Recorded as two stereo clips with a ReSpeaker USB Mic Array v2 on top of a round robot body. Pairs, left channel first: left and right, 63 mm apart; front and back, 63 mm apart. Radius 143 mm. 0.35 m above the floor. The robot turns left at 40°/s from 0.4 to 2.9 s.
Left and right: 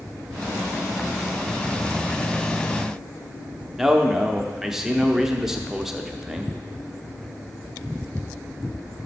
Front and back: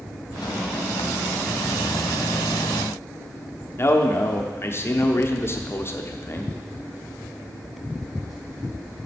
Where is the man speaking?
10° right, 1.1 m.